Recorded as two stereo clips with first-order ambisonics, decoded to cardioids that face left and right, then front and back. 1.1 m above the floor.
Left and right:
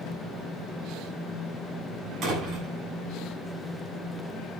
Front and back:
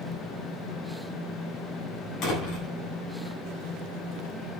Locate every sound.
2.2 s a door slam: 40° right, 8.5 m